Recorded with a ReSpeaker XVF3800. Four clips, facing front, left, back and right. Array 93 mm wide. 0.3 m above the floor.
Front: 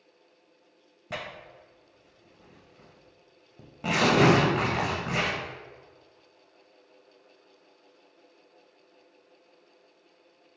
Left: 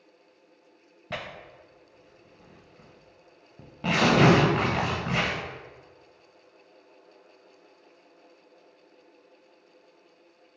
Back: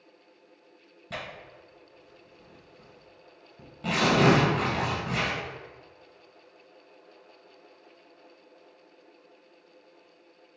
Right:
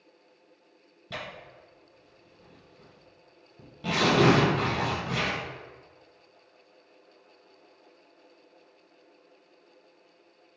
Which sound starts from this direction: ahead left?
Tearing paper, at 1.1 s.